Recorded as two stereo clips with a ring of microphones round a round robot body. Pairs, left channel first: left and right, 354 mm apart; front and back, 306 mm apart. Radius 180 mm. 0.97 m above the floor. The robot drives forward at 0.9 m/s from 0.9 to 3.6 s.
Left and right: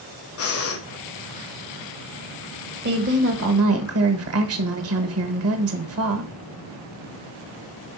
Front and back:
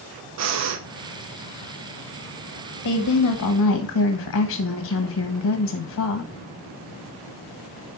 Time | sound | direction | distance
0.4 | breathing | 140° left | 1.0 m
2.8 | a woman speaking | 30° right | 1.8 m